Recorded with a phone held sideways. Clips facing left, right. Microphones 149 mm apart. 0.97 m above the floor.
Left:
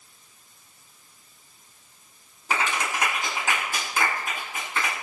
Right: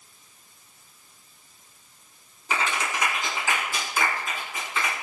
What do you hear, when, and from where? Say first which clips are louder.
2.5 s a clap: left 1 dB; 60° left (ahead or behind), 8.5 m